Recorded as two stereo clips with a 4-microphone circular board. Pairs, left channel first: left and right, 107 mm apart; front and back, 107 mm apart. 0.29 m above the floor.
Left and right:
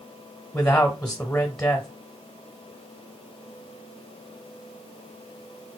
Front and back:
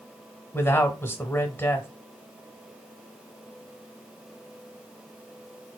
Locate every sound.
0.5 s a man speaking: 15° left, 1.0 m